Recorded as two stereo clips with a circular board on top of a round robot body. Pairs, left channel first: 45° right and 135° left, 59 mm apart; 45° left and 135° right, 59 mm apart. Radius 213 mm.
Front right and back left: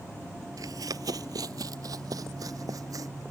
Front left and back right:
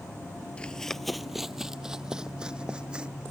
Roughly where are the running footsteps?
Behind left.